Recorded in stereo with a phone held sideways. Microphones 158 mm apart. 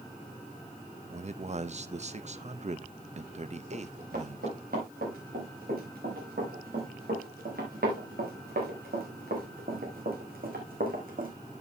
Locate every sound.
1.1 s a man speaking: 45° right (ahead or behind), 0.6 m
3.7 s running footsteps: 75° right (ahead or behind), 7 m; by 11.3 s 65° right (ahead or behind), 2.5 m